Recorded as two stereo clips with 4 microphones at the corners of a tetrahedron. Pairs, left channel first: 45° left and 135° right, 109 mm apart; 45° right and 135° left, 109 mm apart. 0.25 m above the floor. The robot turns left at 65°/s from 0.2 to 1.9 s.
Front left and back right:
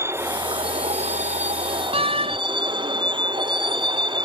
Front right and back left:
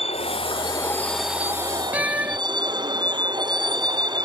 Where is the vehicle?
70° right; by 4.2 s straight behind.